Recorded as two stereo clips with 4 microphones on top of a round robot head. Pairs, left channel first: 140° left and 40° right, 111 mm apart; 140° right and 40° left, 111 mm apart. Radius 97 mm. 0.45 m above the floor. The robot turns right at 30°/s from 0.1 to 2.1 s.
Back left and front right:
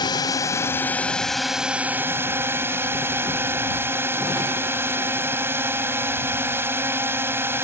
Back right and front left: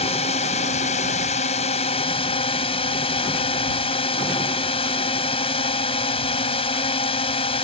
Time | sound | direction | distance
0.0 | a drone | 170° right | ?